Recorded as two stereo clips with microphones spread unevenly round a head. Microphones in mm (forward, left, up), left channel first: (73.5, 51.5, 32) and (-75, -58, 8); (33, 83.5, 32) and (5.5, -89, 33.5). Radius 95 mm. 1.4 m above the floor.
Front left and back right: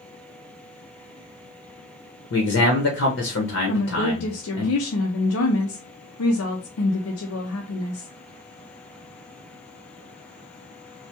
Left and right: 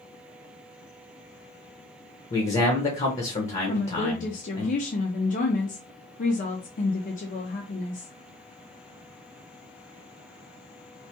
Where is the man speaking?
30° left, 0.8 m.